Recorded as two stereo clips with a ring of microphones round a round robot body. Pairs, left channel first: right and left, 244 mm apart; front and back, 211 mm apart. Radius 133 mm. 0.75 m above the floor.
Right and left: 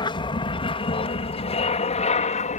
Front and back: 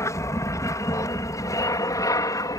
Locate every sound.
0.0 s an aircraft: 55° right; by 2.6 s 60° right